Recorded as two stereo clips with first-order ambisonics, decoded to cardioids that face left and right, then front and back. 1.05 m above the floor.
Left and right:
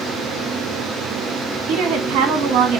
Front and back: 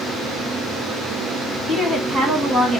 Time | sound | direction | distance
1.7 | a woman speaking | 110° right | 1.2 m